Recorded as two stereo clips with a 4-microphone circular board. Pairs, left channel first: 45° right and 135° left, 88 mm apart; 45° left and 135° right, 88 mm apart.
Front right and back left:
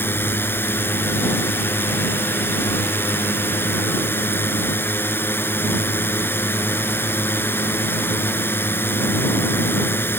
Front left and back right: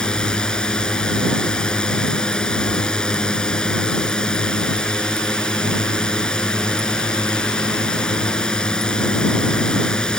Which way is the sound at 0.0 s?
25° right.